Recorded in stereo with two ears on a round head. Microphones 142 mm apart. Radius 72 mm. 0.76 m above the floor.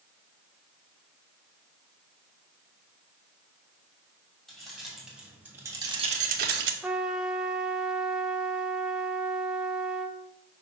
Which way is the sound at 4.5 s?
Centre (ahead or behind).